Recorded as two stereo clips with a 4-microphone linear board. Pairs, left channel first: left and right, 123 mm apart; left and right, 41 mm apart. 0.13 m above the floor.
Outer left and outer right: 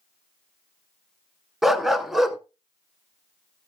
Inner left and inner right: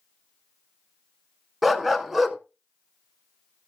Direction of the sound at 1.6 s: 5° right (ahead or behind).